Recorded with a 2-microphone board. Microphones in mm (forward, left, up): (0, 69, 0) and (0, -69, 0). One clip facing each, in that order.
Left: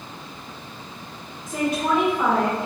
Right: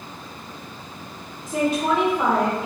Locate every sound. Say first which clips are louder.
1.5 s a woman speaking: right 2 dB; 30° right (ahead or behind), 1.5 m; by 2.7 s 5° right (ahead or behind), 1.1 m